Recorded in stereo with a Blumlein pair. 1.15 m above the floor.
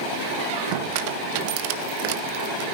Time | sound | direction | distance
0.3 | a squeak | 45° right | 1.0 m